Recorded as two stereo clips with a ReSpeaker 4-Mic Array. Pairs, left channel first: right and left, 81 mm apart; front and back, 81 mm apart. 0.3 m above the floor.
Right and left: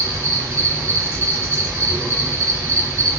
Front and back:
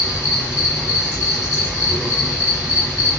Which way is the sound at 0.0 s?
90° left.